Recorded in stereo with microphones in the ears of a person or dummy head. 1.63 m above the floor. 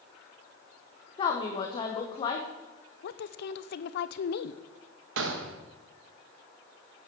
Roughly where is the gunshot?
Right.